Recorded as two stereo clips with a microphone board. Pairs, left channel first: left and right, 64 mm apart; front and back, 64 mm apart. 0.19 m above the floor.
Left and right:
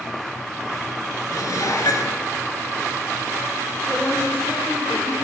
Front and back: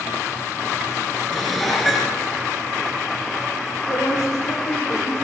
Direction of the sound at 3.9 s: 20° left.